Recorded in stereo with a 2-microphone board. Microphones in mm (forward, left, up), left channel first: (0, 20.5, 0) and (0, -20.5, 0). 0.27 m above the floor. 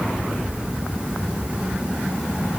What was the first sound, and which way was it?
Only background noise.